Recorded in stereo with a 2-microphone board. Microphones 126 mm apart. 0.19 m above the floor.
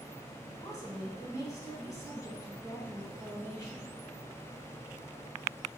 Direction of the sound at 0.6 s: 25° left (ahead or behind).